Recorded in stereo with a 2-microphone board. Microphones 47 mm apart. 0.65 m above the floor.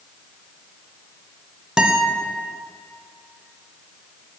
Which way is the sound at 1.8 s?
15° right (ahead or behind).